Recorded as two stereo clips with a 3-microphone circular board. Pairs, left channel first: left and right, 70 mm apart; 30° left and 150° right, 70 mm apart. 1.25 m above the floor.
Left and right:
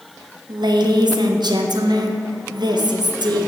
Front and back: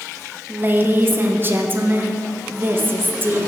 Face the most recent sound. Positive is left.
turn(degrees=-90)